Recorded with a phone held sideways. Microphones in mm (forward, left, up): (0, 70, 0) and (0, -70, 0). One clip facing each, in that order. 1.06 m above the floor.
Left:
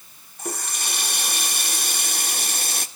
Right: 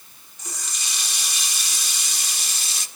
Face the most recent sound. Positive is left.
turn(degrees=55)  # may be behind; listen again after turning